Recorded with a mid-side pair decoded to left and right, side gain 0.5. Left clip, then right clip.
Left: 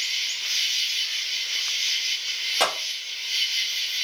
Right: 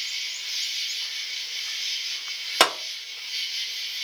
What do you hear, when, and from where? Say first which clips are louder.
0.0 s an insect: left 4 dB; 50° left, 1.4 m
2.6 s a clap: right 4 dB; 60° right, 1.7 m